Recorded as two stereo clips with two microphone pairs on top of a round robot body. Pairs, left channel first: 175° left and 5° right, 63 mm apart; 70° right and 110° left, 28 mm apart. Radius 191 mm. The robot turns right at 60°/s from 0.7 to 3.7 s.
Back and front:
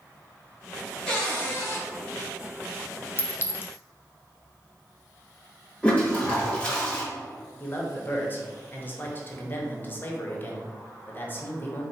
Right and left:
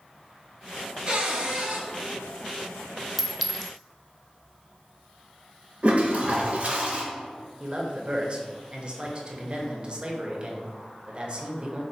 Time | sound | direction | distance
1.1 | a cupboard door | 95° left | 1.5 m
3.2 | a clink | 170° left | 0.7 m
5.8 | a toilet flushing | 105° left | 1.3 m
7.6 | a man speaking | 125° left | 1.0 m